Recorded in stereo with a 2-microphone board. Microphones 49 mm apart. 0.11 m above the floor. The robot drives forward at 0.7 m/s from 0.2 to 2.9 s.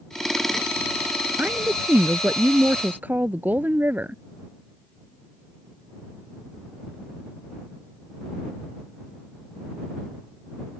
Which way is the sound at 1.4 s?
40° right (ahead or behind).